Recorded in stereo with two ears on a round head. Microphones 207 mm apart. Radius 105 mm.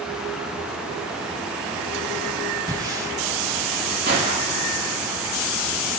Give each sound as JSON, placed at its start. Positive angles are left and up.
{"t": 2.7, "sound": "breathing", "side_deg": -15, "distance_m": 9.0}
{"t": 4.1, "sound": "a gunshot", "side_deg": -45, "distance_m": 9.0}